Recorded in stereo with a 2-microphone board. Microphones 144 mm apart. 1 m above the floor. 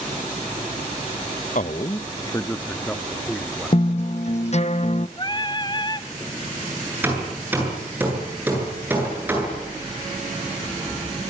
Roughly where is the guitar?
Left.